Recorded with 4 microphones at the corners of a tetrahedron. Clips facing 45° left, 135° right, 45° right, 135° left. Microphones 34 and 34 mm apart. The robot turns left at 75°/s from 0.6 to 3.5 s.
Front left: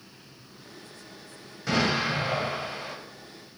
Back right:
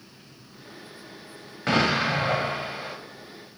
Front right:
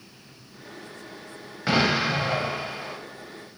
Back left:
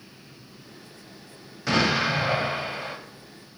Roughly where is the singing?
No singing in this recording.